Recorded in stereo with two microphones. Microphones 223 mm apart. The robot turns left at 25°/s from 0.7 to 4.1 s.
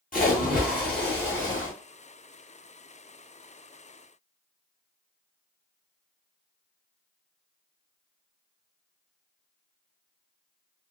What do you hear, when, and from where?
0.1 s a splash: 40° left (ahead or behind), 1.2 m; by 1.7 s 65° left (ahead or behind), 1.2 m